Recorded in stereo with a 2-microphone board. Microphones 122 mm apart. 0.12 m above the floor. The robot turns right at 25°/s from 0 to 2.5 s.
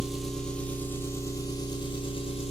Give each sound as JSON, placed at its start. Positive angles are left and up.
{"t": 0.0, "sound": "an engine running", "azimuth_deg": -5, "distance_m": 1.2}